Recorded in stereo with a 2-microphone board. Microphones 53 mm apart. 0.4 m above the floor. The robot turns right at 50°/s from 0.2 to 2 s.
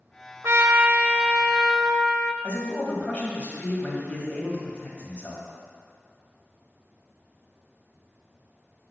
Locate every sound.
0.4 s a trumpet: 60° right, 0.5 m; by 2.3 s 15° left, 0.5 m
2.4 s a man speaking: 25° left (ahead or behind), 1.8 m